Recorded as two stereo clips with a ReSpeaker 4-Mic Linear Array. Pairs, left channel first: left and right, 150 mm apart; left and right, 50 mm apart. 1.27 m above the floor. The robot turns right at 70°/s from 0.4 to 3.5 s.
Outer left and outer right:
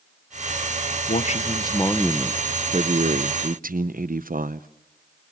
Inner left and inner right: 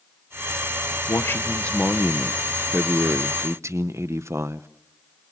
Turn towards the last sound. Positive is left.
turn(degrees=-80)